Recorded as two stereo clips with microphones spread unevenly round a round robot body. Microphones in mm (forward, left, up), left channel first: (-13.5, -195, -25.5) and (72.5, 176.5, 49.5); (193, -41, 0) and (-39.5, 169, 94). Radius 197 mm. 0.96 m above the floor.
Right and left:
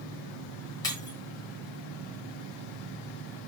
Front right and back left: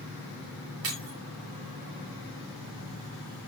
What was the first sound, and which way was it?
Breaking glass, 175° left.